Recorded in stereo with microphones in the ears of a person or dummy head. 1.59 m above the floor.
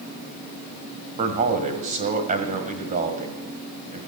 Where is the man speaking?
35° right (ahead or behind), 1.7 m.